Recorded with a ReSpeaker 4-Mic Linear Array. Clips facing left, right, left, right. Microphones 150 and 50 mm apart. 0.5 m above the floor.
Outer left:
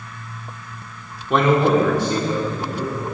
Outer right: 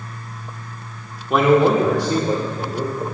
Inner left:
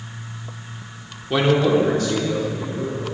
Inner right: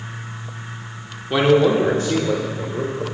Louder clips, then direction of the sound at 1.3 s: Outer right 2 dB, inner right 2 dB; centre (ahead or behind).